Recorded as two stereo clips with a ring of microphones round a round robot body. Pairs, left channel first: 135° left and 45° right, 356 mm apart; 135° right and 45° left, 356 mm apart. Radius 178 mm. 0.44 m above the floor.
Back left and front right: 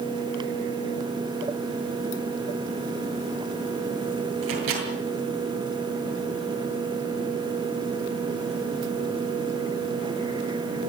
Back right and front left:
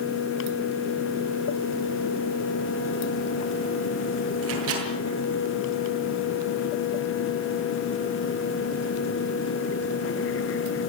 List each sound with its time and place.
4.4 s a microwave: 10° right, 8.5 m